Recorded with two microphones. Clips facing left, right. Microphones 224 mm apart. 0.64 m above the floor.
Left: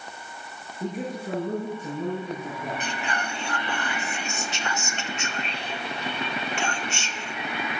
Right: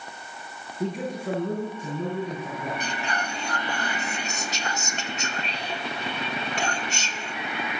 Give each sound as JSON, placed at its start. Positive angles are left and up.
{"t": 0.8, "sound": "a man speaking", "side_deg": -75, "distance_m": 7.5}
{"t": 2.8, "sound": "whispering", "side_deg": -40, "distance_m": 1.4}